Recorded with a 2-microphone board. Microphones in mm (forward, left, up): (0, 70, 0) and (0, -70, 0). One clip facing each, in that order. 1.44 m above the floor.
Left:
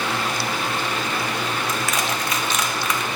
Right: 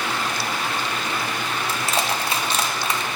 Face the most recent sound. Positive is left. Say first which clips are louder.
# even
turn(degrees=-30)  # may be behind; listen again after turning